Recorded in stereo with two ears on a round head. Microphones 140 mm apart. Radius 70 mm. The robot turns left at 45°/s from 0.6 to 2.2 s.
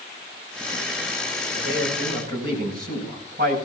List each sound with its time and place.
1.6 s a man speaking: 85° right, 8 m; by 3.5 s 65° right (ahead or behind), 8 m